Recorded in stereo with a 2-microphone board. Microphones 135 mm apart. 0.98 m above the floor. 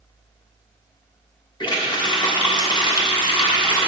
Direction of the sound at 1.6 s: 35° left (ahead or behind).